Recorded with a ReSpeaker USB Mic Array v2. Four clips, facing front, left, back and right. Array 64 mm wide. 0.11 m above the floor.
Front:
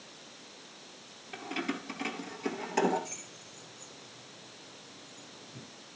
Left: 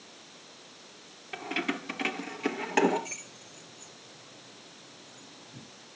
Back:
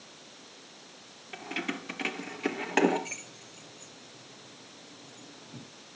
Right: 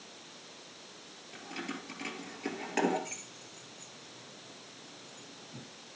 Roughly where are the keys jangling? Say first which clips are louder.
Left 8 dB, even; left.